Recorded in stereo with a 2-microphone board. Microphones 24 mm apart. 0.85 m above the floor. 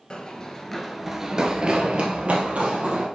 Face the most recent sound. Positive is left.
turn(degrees=-65)  # may be behind; listen again after turning